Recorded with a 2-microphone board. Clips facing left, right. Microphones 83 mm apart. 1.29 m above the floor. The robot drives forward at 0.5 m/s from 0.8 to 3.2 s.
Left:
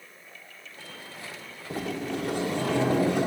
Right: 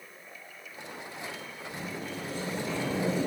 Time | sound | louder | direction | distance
1.7 | a sliding door | left 8 dB | 85° left | 2.5 m